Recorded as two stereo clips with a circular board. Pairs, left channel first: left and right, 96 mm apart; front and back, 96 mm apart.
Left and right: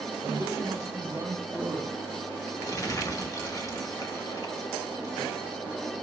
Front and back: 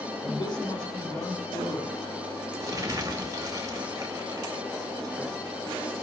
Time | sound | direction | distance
0.2 | a man speaking | 30° right | 3.5 m
2.6 | crumpling | 135° left | 1.6 m